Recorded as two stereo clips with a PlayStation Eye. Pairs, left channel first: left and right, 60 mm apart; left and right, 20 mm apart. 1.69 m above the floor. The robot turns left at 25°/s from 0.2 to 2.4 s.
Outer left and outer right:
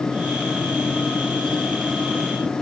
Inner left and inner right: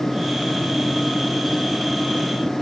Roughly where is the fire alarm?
I don't hear a fire alarm.